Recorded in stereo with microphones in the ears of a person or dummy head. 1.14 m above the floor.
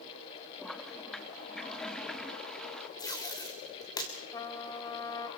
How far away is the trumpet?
About 1.6 m.